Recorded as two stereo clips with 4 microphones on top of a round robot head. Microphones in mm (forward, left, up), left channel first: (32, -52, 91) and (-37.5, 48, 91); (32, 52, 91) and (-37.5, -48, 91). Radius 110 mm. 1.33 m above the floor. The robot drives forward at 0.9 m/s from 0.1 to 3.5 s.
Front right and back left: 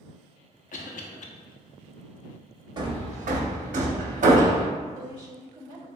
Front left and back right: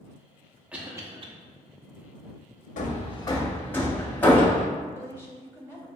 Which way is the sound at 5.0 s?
175° left.